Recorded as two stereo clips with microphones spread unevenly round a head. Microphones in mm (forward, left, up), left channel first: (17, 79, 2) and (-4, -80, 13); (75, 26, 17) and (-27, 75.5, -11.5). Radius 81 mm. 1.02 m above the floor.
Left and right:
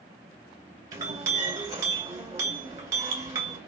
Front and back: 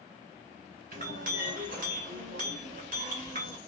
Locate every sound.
0.9 s a clink: 165° right, 1.2 m